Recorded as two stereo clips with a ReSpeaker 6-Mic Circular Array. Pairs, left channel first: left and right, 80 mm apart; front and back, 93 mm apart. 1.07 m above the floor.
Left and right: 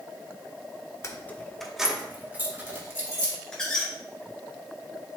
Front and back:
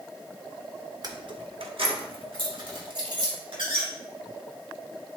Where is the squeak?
170° left, 2 m.